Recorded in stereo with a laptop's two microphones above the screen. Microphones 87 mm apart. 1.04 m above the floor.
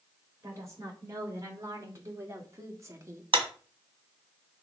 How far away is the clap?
About 1.5 m.